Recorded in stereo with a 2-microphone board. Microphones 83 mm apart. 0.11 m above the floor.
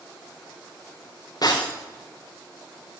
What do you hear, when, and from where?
1.4 s breaking glass: 50° left (ahead or behind), 4 m